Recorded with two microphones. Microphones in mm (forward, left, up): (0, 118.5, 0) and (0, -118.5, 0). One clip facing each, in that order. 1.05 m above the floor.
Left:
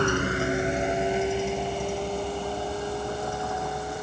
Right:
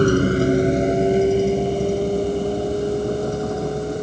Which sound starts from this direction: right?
A vehicle, at 0.0 s.